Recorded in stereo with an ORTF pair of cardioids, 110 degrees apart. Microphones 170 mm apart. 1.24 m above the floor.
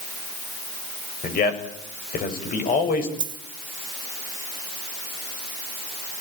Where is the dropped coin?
25° right, 1.5 m.